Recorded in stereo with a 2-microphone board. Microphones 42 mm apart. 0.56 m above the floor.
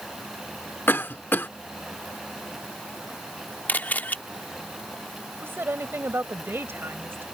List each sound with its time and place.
0.9 s a cough: 60° left (ahead or behind)
3.7 s a camera shutter: 45° left (ahead or behind)
5.4 s a woman speaking: 65° right (ahead or behind)